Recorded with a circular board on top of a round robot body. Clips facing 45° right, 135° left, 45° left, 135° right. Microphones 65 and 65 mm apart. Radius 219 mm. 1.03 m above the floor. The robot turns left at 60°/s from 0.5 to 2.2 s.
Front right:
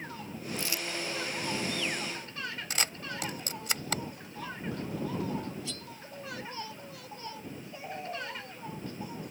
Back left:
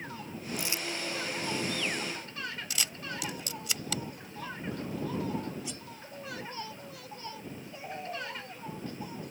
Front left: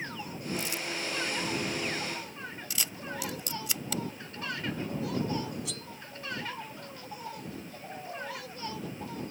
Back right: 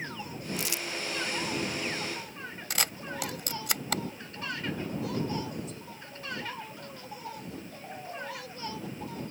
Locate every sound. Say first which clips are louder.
0.6 s crumpling: even, even; 145° right; by 0.9 s 165° right
2.7 s a camera shutter: front right 2 dB, back right 6 dB; 95° right
5.7 s cutlery clinking: even, even; 60° left